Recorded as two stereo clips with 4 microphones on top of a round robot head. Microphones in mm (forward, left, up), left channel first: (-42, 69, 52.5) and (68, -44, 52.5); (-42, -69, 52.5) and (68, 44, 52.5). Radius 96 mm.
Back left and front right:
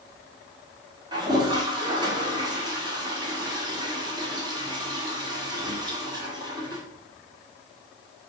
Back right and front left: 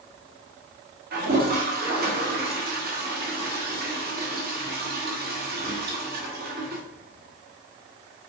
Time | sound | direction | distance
1.1 | a toilet flushing | 20° left | 1.8 m